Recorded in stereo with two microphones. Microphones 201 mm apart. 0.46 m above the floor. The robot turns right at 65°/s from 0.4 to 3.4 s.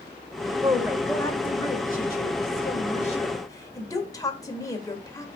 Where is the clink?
I don't hear a clink.